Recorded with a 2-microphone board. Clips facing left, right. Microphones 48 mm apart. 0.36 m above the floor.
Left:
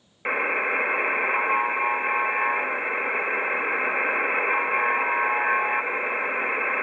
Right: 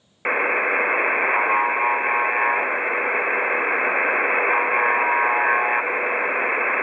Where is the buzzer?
20° right (ahead or behind), 0.6 m.